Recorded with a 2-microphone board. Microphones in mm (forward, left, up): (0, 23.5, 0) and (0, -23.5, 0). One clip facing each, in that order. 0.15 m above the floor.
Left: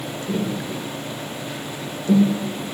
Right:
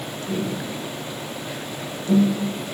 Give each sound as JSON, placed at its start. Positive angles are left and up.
{"t": 0.3, "sound": "tapping", "side_deg": 15, "distance_m": 8.5}